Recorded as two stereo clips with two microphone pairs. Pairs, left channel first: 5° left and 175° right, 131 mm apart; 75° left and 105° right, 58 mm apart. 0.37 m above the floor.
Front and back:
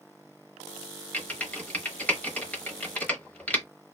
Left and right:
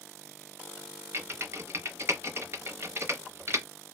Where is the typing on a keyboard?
75° right, 0.8 m.